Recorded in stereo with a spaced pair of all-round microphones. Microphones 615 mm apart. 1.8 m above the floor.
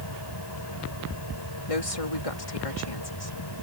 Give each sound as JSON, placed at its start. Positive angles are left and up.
{"t": 0.0, "sound": "a machine running", "side_deg": 40}
{"t": 1.7, "sound": "a woman speaking", "side_deg": 60}